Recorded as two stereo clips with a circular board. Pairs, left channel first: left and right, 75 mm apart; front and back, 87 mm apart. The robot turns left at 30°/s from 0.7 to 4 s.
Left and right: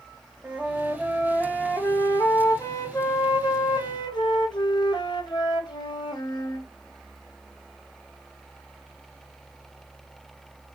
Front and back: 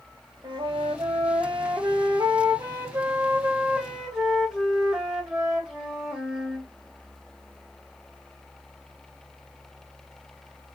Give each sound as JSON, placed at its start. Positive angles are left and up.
{"t": 0.4, "sound": "a flute", "azimuth_deg": -165, "distance_m": 2.0}